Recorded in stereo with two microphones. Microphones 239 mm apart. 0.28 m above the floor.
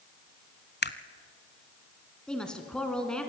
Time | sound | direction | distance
0.8 | a camera shutter | 45° left (ahead or behind) | 0.7 m
2.3 | a woman speaking | 5° left (ahead or behind) | 2.5 m